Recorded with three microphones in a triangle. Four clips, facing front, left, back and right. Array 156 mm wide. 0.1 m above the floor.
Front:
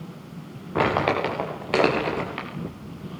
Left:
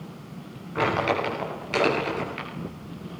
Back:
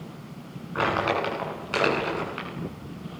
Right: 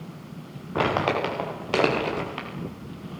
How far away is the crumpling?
About 9.5 m.